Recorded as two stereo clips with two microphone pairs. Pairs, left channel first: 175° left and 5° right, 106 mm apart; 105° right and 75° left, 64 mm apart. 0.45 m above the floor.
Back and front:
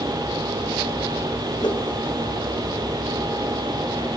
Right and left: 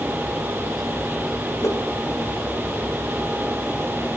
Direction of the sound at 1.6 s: 145° right.